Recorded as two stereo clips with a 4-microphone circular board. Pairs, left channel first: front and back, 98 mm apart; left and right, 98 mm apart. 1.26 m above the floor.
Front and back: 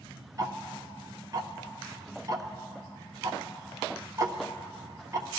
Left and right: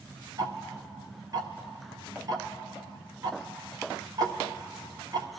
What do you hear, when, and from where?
0.4 s ticking: 135° right, 0.8 m